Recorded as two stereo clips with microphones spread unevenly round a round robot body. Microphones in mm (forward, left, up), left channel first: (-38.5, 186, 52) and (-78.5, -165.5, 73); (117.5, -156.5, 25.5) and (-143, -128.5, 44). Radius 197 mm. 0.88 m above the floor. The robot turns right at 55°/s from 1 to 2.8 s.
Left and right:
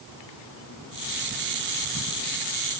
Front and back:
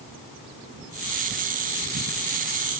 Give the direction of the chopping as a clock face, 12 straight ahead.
No chopping in this recording.